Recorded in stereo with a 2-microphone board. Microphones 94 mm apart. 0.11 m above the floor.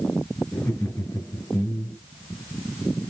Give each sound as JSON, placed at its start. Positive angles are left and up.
{"t": 0.5, "sound": "laughter", "side_deg": 15, "distance_m": 1.6}